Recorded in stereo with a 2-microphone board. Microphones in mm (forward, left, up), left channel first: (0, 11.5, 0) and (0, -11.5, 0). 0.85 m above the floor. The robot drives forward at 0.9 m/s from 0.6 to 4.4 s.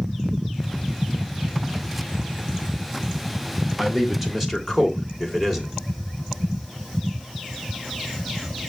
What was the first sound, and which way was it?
A man speaking, 15° right (ahead or behind).